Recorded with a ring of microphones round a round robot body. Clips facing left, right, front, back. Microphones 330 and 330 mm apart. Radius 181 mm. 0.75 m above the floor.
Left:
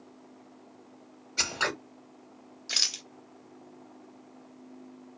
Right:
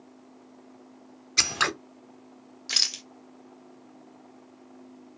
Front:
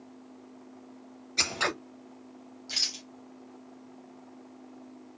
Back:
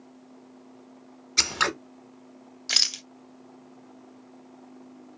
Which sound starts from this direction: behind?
A rattle, at 2.7 s.